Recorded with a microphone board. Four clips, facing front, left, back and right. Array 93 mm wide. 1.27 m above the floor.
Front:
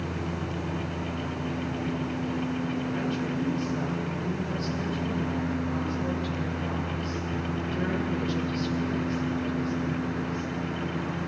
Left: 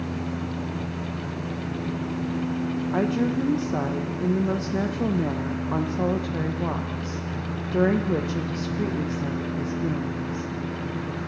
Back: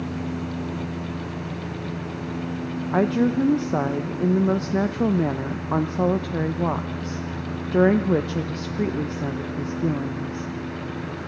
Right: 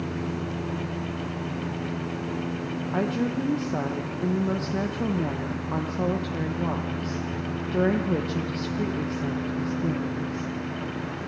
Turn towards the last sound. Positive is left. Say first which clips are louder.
# left 2 dB, back 9 dB
turn(degrees=170)